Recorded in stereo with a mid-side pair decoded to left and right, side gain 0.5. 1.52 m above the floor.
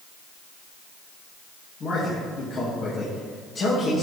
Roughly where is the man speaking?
Ahead left.